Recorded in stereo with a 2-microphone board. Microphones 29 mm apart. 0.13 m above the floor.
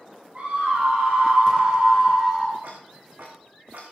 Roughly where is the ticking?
Right.